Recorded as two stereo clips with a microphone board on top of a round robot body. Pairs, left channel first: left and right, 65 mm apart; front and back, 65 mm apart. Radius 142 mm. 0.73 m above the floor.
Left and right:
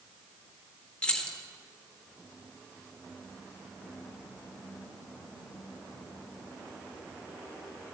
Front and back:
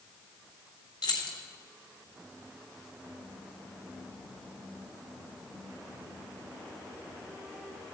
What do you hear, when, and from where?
1.0 s keys jangling: 15° left, 1.5 m